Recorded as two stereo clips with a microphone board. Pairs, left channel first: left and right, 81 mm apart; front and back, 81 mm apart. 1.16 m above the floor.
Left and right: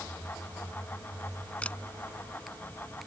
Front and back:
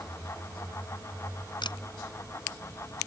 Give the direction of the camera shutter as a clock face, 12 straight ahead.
11 o'clock.